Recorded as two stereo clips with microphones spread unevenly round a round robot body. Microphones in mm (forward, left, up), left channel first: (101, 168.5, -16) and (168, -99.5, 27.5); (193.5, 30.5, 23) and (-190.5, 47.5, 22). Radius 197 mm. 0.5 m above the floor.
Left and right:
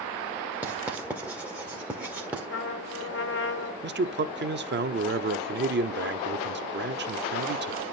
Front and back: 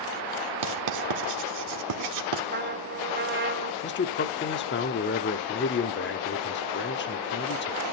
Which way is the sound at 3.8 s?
40° right.